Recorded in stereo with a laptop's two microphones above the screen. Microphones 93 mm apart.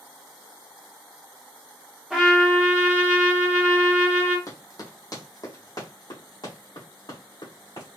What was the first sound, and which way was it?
A trumpet, 5° right (ahead or behind).